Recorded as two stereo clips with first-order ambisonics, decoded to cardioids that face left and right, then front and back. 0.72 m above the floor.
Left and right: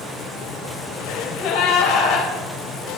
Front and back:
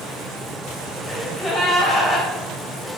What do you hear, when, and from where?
1.1 s a gasp: 85° left, 3 m